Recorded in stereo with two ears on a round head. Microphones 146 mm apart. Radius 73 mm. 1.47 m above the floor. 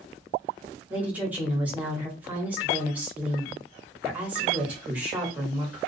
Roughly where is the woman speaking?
Centre.